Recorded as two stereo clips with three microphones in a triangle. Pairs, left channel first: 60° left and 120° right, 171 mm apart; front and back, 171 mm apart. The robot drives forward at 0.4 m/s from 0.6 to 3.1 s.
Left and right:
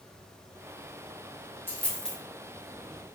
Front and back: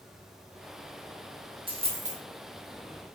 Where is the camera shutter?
I don't hear a camera shutter.